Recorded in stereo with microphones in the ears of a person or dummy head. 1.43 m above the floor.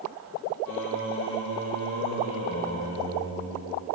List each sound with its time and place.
0.7 s singing: 45° left (ahead or behind), 0.7 m